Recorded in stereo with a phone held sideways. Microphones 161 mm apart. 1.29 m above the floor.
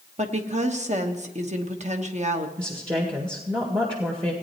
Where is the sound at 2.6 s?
30° right (ahead or behind), 1.7 m.